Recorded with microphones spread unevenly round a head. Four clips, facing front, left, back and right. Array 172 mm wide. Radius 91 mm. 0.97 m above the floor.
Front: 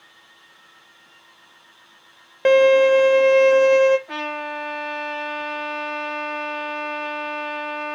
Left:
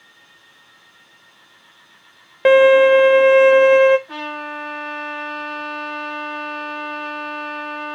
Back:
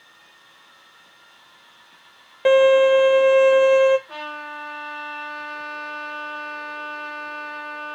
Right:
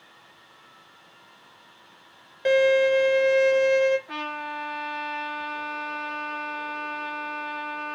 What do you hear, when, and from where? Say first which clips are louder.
2.5 s a violin: left 9 dB, even; 75° left, 0.6 m
4.1 s a trumpet: left 4 dB, front 5 dB; straight ahead, 2.5 m